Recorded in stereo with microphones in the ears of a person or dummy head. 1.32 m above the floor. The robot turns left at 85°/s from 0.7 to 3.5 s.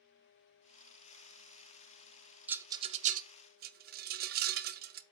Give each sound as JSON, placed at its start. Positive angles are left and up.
{"t": 2.5, "sound": "a rattle", "side_deg": -5, "distance_m": 0.5}